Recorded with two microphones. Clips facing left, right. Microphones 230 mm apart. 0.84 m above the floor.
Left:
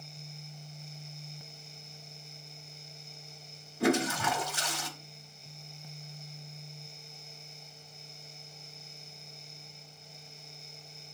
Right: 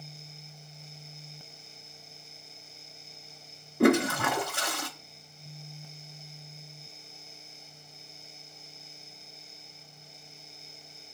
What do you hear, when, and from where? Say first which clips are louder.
3.8 s a toilet flushing: right 5 dB; 65° right (ahead or behind), 0.6 m